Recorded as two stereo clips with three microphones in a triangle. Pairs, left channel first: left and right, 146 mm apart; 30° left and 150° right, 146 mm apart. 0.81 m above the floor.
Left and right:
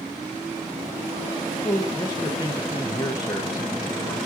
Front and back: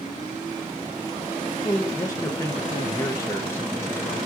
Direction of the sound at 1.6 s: 75° left.